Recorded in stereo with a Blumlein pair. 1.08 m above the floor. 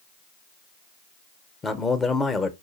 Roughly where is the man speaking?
Ahead.